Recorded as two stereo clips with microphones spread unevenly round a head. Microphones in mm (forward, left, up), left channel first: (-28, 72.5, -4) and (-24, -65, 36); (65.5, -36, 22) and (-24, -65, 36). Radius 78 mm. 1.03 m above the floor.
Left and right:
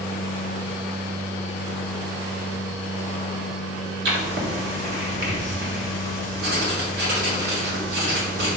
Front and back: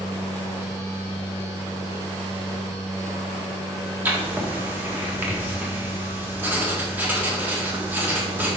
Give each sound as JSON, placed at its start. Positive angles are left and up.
{"t": 0.0, "sound": "a machine running", "azimuth_deg": -110, "distance_m": 2.5}
{"t": 4.0, "sound": "writing", "azimuth_deg": -90, "distance_m": 1.7}